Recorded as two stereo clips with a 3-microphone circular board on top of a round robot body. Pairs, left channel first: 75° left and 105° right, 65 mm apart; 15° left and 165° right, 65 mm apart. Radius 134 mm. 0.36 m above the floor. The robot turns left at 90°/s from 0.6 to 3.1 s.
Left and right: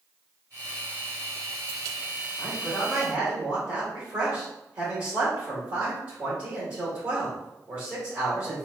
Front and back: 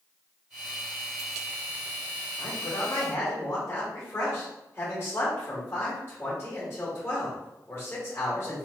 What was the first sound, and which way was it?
A man speaking, 15° left.